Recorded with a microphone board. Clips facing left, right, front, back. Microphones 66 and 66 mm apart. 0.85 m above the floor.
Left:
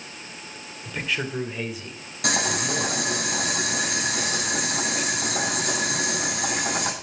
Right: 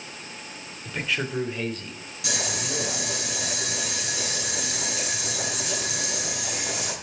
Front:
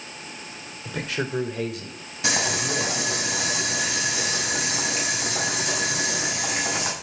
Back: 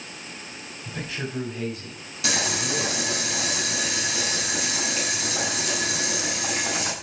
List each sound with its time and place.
0.8 s a man speaking: 5° right, 3 m; by 3.2 s 20° left, 5.5 m
2.2 s boiling: 60° left, 8 m